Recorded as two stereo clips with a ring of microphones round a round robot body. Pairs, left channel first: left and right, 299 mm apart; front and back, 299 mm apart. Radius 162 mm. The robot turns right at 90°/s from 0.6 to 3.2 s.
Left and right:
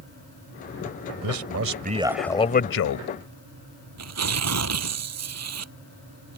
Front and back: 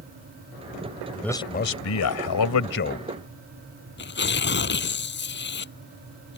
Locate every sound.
1.2 s a man speaking: 85° right; by 3.1 s 80° left
4.0 s tearing paper: 55° right